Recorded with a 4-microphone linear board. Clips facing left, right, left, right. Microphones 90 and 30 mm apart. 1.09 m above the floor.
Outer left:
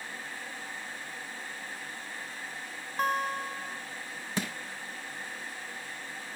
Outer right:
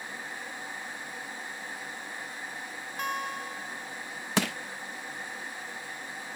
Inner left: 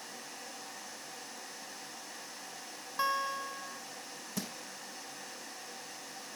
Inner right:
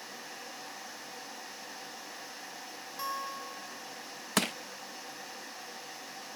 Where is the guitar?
35° left (ahead or behind), 1.0 m.